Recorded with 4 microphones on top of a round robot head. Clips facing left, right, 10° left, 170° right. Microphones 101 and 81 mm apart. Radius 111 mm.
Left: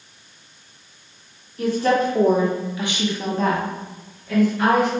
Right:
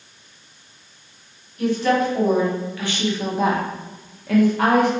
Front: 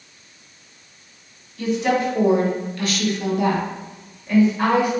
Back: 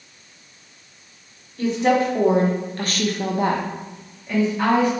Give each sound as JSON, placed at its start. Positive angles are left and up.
{"t": 1.6, "sound": "a woman speaking", "azimuth_deg": 135, "distance_m": 1.2}